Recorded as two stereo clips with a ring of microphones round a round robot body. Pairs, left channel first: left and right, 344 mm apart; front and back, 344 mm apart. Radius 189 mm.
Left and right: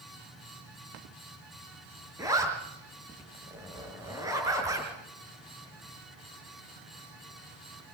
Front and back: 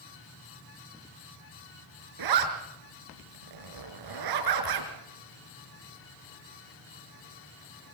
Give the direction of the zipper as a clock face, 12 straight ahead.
6 o'clock.